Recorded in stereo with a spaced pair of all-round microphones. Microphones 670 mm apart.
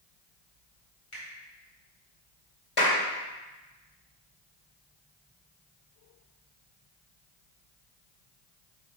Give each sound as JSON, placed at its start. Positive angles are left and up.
{"t": 1.1, "sound": "a finger snap", "side_deg": 45, "distance_m": 4.0}
{"t": 2.8, "sound": "a clap", "side_deg": 50, "distance_m": 2.0}